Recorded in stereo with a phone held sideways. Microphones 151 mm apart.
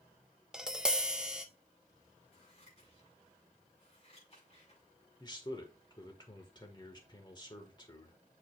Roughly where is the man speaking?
Left.